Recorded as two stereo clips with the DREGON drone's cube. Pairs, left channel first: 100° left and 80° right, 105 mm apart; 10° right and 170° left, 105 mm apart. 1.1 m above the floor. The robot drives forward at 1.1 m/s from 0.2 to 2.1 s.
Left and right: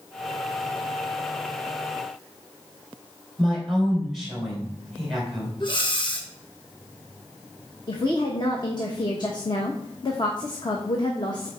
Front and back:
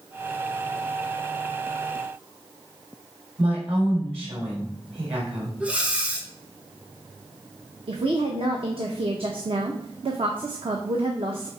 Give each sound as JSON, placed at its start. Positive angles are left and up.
{"t": 3.4, "sound": "a woman speaking", "azimuth_deg": -170, "distance_m": 3.5}
{"t": 5.6, "sound": "breathing", "azimuth_deg": 95, "distance_m": 1.1}
{"t": 7.9, "sound": "a woman speaking", "azimuth_deg": 145, "distance_m": 0.9}